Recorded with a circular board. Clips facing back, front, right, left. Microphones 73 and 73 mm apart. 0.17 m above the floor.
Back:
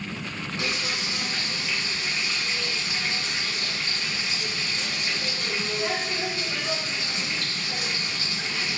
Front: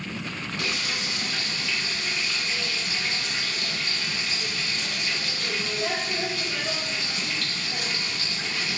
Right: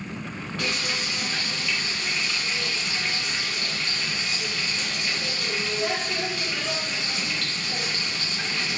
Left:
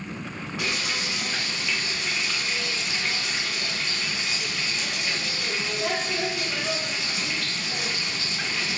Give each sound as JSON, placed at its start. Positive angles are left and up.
{"t": 0.6, "sound": "frying", "azimuth_deg": 145, "distance_m": 1.7}